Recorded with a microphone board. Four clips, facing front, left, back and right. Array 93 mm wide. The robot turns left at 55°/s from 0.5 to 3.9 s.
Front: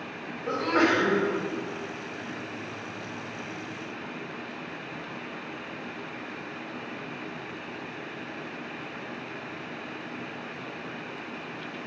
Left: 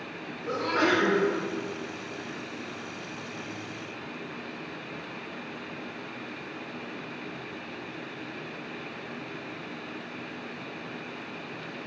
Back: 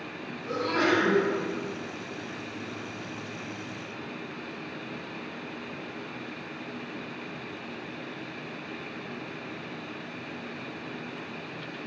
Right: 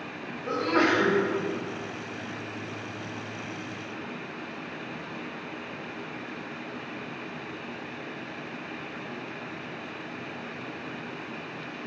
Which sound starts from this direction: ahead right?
A sneeze, at 0.5 s.